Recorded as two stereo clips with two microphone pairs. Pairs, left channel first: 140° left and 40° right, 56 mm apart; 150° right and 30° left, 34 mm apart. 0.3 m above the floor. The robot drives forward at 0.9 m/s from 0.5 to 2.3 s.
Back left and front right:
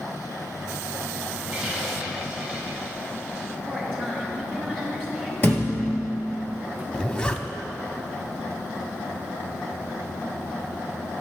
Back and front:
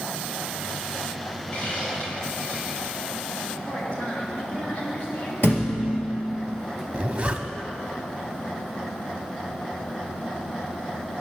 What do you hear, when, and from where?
1.5 s a hiss: 115° right, 3.5 m; by 3.5 s 125° right, 4 m
3.7 s a woman speaking: 130° right, 2.5 m
5.4 s a thud: 165° right, 1.8 m
6.9 s a zipper: 75° left, 0.5 m